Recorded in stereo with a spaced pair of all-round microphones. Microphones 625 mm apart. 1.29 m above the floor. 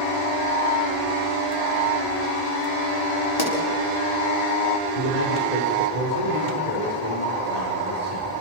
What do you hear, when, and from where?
3.4 s a pop: 35° left (ahead or behind), 4.5 m
5.0 s a man speaking: 80° left, 3.5 m